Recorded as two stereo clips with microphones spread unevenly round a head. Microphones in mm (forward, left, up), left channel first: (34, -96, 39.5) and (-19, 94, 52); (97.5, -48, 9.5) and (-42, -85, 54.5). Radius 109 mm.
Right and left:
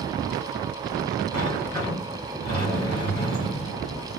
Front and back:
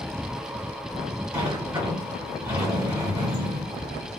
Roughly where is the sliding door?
Right.